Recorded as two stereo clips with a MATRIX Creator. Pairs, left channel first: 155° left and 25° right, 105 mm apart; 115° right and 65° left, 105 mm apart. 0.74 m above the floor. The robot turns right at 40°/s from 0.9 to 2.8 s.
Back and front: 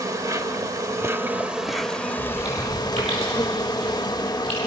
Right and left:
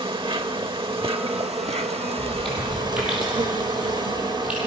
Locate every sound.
0.0 s an insect: 35° left, 1.0 m; by 4.7 s 110° left, 1.0 m
2.2 s chewing: 35° right, 9.5 m; by 4.6 s 10° right, 9.5 m